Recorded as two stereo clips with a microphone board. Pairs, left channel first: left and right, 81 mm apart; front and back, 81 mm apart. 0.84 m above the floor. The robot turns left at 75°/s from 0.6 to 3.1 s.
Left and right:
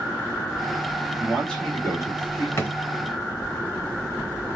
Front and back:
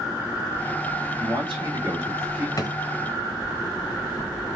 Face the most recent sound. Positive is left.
turn(degrees=0)